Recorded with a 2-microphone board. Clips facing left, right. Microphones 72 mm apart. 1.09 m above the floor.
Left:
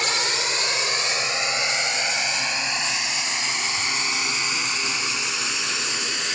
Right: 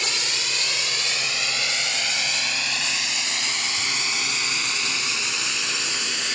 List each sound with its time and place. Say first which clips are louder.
0.0 s a drone: left 4 dB; 45° left (ahead or behind); by 6.4 s 10° left (ahead or behind)